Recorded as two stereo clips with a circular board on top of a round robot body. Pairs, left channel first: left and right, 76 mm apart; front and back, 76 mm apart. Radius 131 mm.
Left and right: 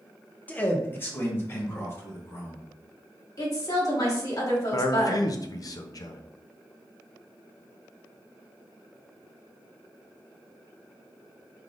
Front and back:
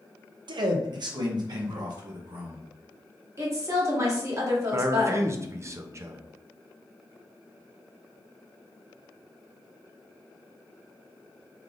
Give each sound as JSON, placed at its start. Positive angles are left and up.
{"t": 0.5, "sound": "a man speaking", "azimuth_deg": 160, "distance_m": 0.6}
{"t": 3.4, "sound": "a woman speaking", "azimuth_deg": 130, "distance_m": 1.4}
{"t": 4.7, "sound": "a man speaking", "azimuth_deg": 130, "distance_m": 0.6}